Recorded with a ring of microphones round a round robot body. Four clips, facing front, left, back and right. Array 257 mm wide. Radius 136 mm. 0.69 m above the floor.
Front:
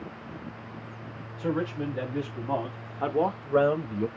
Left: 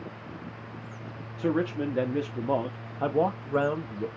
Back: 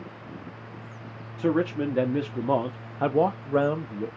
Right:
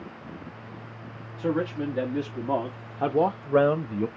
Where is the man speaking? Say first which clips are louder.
Even, back 5 dB; 155° left, 1.4 m; by 4.1 s 75° right, 0.9 m.